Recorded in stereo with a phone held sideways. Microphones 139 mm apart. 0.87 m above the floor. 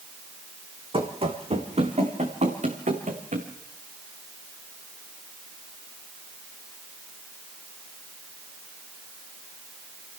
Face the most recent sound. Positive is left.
turn(degrees=-60)  # may be behind; listen again after turning